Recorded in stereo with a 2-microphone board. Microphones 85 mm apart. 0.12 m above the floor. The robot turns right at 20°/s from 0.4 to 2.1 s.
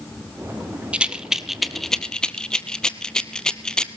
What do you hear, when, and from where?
0.9 s a rattle: 15° right (ahead or behind), 0.7 m; by 3.9 s 10° left (ahead or behind), 0.7 m